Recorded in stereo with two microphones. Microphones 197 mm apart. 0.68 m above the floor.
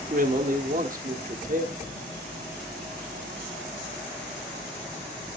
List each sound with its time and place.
0.1 s a man speaking: 45° right (ahead or behind), 1.1 m